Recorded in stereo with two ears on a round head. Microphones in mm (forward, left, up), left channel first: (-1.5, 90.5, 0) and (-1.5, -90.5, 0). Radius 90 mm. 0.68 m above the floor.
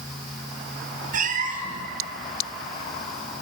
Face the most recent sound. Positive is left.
turn(degrees=-45)  # may be behind; listen again after turning